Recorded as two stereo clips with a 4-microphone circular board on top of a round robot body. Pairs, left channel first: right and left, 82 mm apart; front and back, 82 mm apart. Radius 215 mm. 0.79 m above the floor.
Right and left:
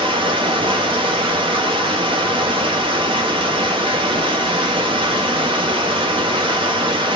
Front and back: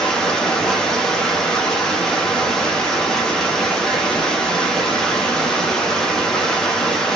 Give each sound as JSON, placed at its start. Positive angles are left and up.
{"t": 0.0, "sound": "running water", "azimuth_deg": 85, "distance_m": 0.9}